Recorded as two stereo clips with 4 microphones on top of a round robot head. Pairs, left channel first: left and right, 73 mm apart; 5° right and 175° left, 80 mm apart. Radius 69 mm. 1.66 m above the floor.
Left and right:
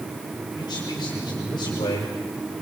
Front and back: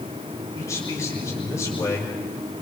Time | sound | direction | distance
0.6 | a man speaking | 50° left | 6.5 m